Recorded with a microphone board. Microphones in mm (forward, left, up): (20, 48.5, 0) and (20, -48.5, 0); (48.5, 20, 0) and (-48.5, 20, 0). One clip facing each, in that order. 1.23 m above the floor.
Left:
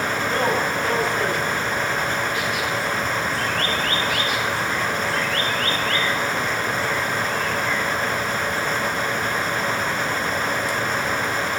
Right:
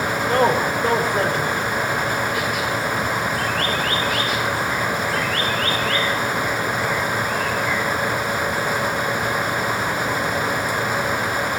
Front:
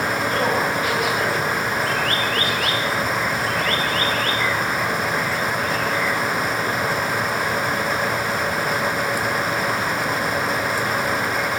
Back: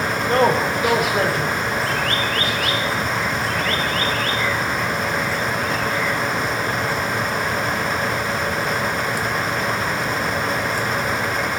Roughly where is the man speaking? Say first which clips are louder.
Right 5 dB, back 6 dB; behind right.